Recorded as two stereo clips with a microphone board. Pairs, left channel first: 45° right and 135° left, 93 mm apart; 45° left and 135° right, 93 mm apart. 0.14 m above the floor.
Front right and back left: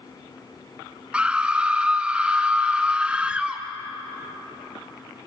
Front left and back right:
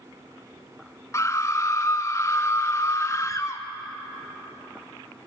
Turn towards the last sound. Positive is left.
turn(degrees=65)